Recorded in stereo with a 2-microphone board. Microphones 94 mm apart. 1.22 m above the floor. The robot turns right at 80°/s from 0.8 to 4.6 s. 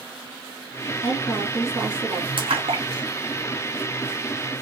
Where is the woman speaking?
130° left, 3 m; by 2.3 s 130° right, 3 m.